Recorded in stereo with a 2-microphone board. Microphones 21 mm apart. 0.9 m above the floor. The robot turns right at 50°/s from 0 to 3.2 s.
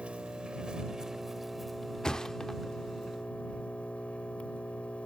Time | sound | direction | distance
0.0 | an engine running | 75° right | ?
2.0 | a thud | 35° left (ahead or behind) | ?